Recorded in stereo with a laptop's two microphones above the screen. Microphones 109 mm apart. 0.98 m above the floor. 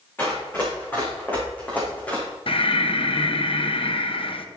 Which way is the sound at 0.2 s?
20° left (ahead or behind).